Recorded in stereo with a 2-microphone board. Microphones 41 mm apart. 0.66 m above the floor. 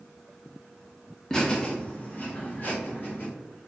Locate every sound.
1.3 s laughter: 15° left (ahead or behind), 0.8 m; by 3.3 s 50° left (ahead or behind), 1.3 m